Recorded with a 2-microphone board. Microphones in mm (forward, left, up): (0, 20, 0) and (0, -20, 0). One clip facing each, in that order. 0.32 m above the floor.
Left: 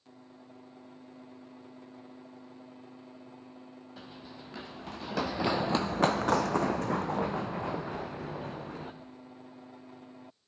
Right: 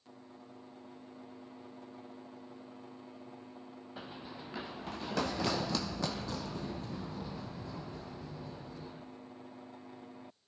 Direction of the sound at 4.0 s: 15° right (ahead or behind).